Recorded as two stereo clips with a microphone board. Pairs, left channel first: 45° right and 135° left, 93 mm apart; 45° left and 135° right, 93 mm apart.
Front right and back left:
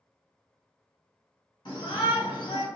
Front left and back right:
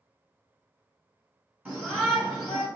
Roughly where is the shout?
Ahead right.